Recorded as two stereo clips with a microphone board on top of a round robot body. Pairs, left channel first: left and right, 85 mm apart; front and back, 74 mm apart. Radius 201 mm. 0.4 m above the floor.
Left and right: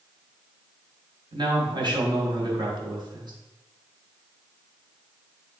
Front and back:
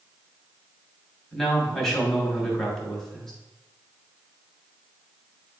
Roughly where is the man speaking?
Right.